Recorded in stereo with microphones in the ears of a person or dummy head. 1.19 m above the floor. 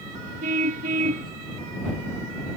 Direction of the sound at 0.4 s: 35° right (ahead or behind).